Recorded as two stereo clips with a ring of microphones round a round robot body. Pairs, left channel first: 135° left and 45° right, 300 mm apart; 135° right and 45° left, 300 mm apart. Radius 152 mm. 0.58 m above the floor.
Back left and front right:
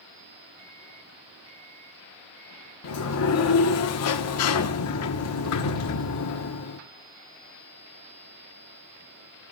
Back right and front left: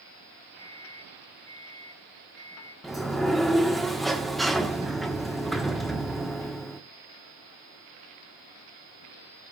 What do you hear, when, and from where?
0.6 s a microwave: 55° right, 4 m
2.8 s a sliding door: 135° left, 1.2 m